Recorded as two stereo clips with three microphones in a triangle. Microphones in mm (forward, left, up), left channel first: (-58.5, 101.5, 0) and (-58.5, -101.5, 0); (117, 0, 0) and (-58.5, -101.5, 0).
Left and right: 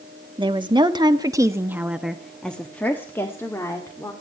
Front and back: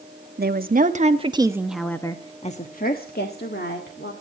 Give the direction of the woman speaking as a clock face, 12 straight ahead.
5 o'clock.